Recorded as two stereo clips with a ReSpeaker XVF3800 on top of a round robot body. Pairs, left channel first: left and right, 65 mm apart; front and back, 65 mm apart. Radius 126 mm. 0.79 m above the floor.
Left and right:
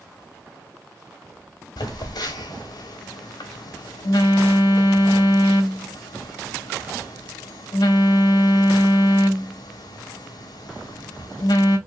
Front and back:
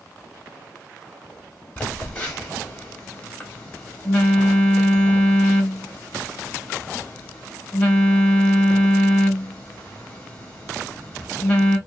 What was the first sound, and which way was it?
A phone buzzing, 75° left.